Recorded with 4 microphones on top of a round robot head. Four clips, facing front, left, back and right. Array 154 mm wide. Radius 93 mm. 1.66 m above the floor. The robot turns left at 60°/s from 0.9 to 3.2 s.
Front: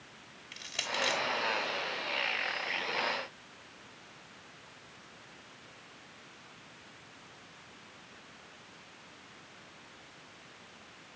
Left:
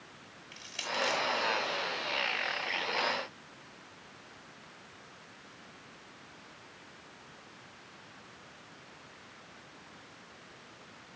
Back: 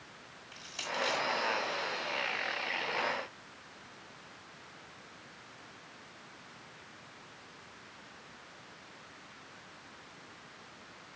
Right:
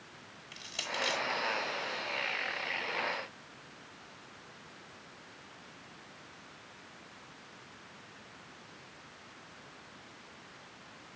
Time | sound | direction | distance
0.5 | crushing | 25° right | 2 m